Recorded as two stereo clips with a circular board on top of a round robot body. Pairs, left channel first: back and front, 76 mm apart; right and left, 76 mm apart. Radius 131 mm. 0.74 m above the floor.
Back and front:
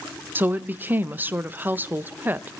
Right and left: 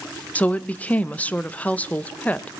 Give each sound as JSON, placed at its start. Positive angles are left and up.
{"t": 0.3, "sound": "a woman speaking", "azimuth_deg": -35, "distance_m": 0.6}